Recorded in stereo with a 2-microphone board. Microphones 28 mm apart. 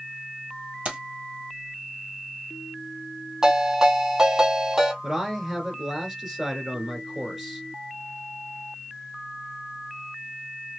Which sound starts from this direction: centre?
A man speaking, at 5.0 s.